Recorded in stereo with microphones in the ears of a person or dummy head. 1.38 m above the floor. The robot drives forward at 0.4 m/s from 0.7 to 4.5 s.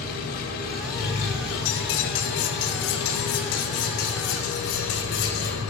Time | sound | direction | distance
0.0 | an engine running | 50° left (ahead or behind) | 1.9 m
1.6 | cutlery clinking | 70° left (ahead or behind) | 1.8 m